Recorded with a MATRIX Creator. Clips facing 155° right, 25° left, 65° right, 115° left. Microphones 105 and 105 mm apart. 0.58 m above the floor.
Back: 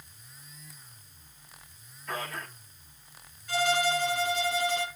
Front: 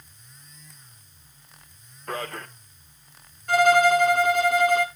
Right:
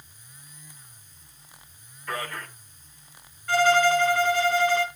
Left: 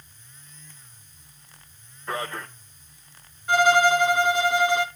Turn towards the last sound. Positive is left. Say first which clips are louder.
# front 10 dB, left 2 dB
turn(degrees=40)